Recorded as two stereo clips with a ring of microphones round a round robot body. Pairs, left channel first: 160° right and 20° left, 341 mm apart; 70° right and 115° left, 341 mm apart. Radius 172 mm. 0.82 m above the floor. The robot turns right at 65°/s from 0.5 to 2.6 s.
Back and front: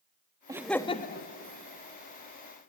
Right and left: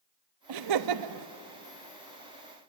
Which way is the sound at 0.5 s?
100° left.